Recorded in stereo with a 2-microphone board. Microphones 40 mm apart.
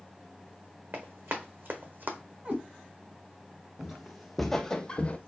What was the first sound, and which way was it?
Running footsteps, 70° right (ahead or behind).